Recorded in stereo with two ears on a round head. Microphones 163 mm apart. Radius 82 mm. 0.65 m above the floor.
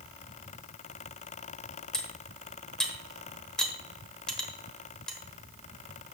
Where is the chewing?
No chewing in this recording.